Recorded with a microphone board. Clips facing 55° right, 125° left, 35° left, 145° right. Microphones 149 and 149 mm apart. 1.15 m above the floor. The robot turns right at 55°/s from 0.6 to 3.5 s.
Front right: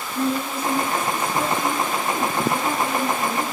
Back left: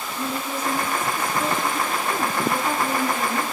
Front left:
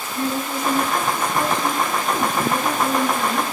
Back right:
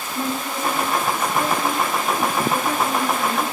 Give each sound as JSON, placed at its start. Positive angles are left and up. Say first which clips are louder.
{"t": 0.1, "sound": "a woman speaking", "louder": "front right 5 dB, front left 2 dB", "azimuth_deg": -80, "distance_m": 8.5}